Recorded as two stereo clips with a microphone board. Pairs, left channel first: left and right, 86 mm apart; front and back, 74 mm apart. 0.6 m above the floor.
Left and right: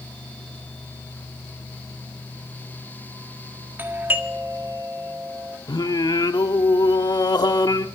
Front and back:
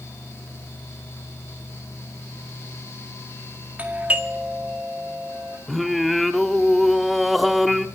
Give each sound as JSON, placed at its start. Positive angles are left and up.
{"t": 3.8, "sound": "a doorbell", "azimuth_deg": -130, "distance_m": 1.9}
{"t": 5.7, "sound": "singing", "azimuth_deg": 90, "distance_m": 1.0}